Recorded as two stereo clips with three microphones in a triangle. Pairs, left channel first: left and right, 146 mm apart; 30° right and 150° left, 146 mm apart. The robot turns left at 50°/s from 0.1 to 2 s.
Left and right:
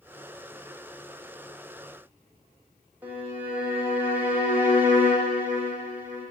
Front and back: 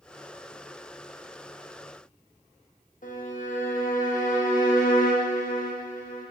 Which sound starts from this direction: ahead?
A violin, at 3.0 s.